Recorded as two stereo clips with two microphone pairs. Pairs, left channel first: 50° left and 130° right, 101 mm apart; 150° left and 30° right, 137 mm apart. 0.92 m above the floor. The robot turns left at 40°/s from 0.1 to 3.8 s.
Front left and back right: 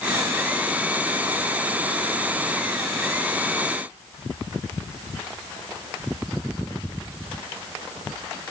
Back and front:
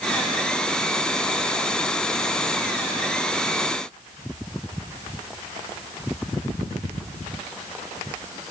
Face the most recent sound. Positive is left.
No sound to turn to.